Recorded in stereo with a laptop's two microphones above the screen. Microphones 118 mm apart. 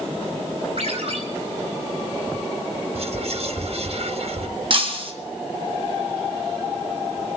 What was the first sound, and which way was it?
A ringtone, 60° right (ahead or behind).